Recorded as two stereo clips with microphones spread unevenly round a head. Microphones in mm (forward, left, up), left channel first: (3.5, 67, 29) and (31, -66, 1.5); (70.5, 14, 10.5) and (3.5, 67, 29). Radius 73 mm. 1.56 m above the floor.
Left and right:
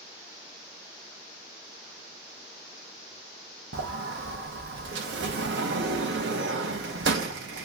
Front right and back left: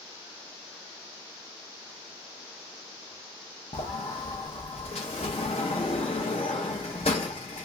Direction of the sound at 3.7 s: 95° right.